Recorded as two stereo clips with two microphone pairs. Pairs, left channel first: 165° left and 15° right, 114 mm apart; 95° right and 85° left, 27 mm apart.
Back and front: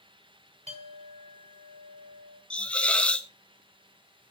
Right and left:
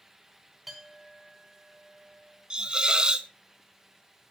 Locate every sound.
0.7 s a clink: straight ahead, 2.5 m
2.5 s a hiss: 95° left, 0.6 m